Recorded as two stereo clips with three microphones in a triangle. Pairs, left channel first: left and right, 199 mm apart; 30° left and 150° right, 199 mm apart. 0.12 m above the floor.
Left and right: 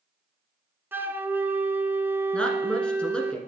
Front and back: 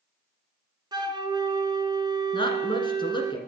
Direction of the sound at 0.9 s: 150° right.